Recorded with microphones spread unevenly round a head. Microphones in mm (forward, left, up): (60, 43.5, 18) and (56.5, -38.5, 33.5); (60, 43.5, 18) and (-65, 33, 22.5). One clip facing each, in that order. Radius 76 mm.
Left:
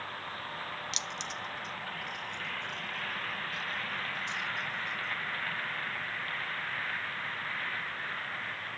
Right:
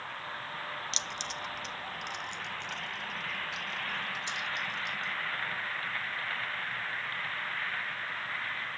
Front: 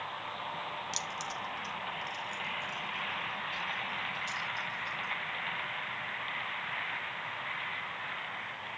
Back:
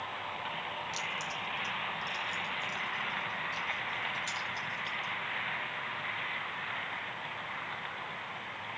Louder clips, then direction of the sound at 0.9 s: Even, even; 45° right.